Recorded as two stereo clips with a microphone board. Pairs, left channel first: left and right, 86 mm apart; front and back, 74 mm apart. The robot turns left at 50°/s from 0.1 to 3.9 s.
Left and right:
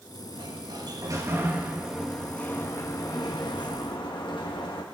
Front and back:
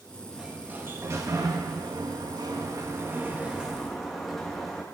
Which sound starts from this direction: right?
A sliding door, at 0.3 s.